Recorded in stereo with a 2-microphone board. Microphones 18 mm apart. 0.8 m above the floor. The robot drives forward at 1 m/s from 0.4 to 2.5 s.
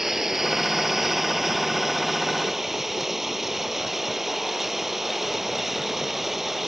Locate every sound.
0.0 s running water: 20° right (ahead or behind); by 6.7 s 15° right (ahead or behind)